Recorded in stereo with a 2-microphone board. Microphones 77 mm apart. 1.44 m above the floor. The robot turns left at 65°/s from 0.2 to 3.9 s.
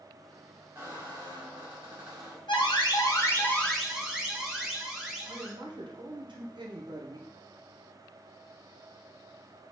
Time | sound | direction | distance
0.8 | a squeak | 30° right | 2 m
2.5 | an alarm | 85° left | 0.9 m
5.3 | a man speaking | 75° right (ahead or behind) | 0.7 m